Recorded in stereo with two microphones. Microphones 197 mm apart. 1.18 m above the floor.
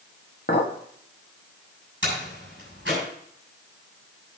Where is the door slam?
75° right (ahead or behind), 6.5 m.